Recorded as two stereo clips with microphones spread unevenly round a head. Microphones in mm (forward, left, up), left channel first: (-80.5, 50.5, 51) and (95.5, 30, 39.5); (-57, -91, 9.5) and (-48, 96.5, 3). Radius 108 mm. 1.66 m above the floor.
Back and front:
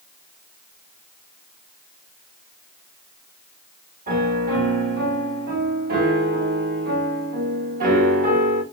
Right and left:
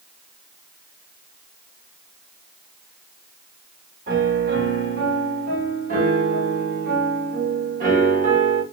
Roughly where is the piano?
Ahead left.